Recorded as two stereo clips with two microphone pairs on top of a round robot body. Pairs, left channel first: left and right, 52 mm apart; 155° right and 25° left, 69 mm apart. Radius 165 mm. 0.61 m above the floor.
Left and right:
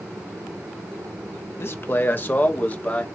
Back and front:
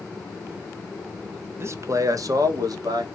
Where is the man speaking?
60° left, 1.0 m; by 3.1 s 30° left, 1.6 m.